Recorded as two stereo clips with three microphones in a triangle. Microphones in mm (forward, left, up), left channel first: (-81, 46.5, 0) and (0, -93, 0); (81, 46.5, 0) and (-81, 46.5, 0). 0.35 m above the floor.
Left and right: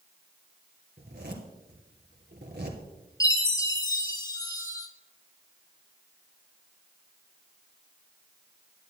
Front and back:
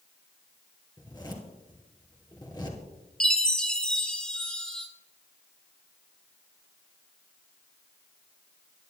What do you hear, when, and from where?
1.0 s a zipper: 65° right, 2.5 m
3.2 s a chime: 80° left, 1.4 m